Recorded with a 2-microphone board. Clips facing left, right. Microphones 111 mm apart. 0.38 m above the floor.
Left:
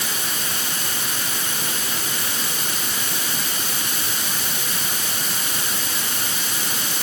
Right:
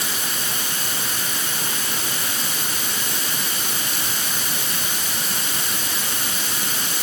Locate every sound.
Only background noise.